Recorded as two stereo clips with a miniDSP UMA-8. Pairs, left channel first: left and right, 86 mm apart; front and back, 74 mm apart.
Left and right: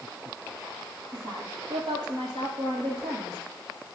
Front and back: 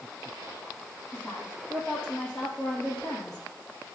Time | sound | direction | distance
1.1 | a woman speaking | 90° right | 6 m